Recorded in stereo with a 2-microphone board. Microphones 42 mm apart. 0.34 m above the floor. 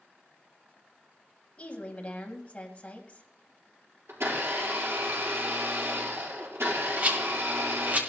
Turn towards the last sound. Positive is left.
turn(degrees=-40)  # may be behind; listen again after turning